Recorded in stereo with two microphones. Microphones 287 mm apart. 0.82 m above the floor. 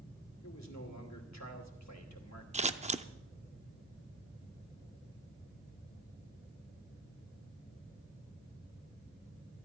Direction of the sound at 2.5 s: 25° right (ahead or behind).